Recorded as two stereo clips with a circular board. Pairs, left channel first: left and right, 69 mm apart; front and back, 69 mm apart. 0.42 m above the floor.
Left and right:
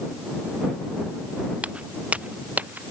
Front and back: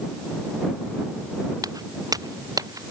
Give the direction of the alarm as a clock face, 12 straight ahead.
No alarm in this recording.